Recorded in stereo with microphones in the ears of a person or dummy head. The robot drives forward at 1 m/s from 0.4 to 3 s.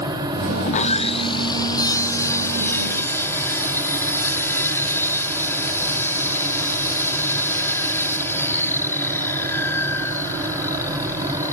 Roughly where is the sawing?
Left.